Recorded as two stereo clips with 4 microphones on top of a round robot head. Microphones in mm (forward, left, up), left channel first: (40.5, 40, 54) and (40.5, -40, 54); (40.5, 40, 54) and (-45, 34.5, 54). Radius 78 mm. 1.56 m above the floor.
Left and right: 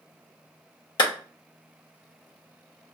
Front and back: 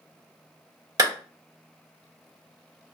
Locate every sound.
1.0 s a clap: 135° left, 1.0 m